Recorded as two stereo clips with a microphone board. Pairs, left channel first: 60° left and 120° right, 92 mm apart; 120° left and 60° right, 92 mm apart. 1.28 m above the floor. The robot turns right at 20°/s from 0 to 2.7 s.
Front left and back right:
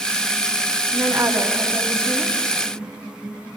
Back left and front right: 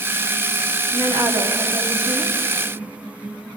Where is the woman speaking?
80° right, 3 m; by 2.4 s 55° right, 3 m.